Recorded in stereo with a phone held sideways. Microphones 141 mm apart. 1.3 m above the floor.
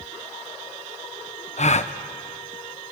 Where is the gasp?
55° left (ahead or behind), 0.8 m.